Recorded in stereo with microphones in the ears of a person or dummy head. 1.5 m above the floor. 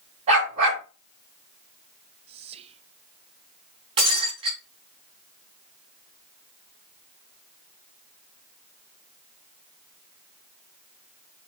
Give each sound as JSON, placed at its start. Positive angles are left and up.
{"t": 0.3, "sound": "a dog barking", "side_deg": -40, "distance_m": 4.5}
{"t": 2.3, "sound": "whispering", "side_deg": -30, "distance_m": 0.6}
{"t": 4.0, "sound": "breaking glass", "side_deg": -35, "distance_m": 3.5}